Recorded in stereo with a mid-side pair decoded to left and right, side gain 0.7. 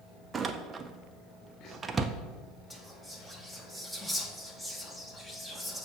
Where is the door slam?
25° right, 0.5 m.